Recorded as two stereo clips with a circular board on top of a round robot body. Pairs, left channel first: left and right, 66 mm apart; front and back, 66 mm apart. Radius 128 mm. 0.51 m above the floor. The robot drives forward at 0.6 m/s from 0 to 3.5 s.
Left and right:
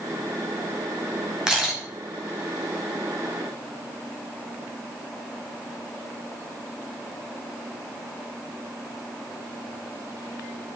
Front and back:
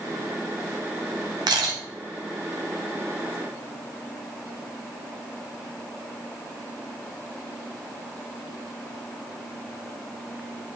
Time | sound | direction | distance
1.5 | a camera shutter | 170° right | 0.8 m